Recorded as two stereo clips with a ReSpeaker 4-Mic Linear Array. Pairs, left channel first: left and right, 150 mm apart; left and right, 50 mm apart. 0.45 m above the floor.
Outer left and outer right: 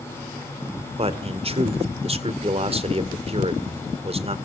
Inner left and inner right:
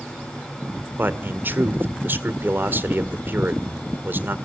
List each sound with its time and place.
1.0 s a man speaking: 40° right (ahead or behind), 1.8 m